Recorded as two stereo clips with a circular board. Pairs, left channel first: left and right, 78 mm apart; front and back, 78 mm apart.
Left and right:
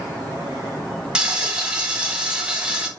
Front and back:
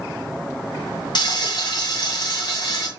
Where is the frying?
15° right, 2.0 m.